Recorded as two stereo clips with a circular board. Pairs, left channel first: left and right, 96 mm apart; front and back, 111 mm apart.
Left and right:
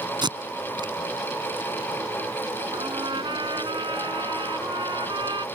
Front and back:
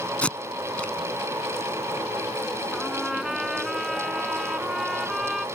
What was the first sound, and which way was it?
Tape being pulled, 75° right.